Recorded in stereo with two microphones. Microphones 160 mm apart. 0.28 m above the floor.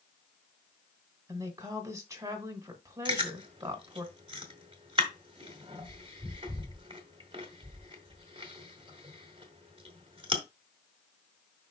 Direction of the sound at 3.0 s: 35° right (ahead or behind).